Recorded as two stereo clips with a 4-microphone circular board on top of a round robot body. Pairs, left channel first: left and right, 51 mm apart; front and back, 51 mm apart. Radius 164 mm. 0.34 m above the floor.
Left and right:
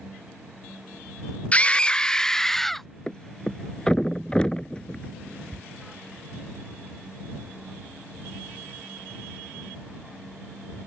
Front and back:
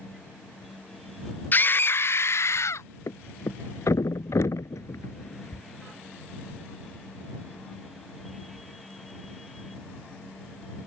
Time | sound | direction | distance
1.5 | a scream | 35° left | ?
3.1 | a thud | 15° left | ?